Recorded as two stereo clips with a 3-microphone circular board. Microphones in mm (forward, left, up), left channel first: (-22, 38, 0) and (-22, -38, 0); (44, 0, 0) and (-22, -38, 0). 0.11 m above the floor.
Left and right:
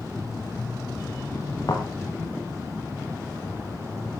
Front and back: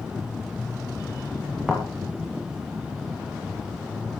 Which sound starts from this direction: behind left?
A thud, at 1.7 s.